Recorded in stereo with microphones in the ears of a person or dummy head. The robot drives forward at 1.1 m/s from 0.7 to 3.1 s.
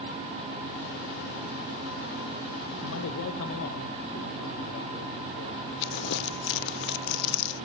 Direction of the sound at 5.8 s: 65° left (ahead or behind).